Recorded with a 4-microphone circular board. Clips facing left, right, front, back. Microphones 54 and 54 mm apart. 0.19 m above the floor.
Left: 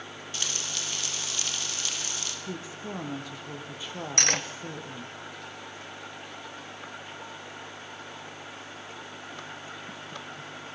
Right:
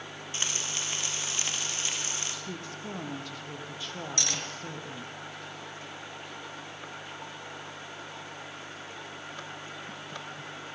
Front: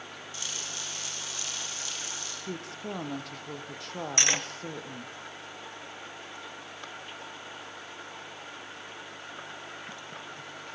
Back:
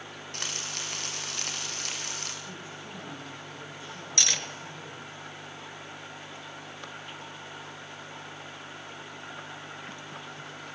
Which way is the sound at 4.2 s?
60° left.